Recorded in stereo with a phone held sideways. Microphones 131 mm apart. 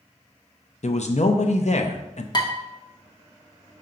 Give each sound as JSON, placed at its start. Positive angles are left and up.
{"t": 0.8, "sound": "a man speaking", "side_deg": 65, "distance_m": 0.7}
{"t": 2.3, "sound": "dishes clattering", "side_deg": 35, "distance_m": 1.1}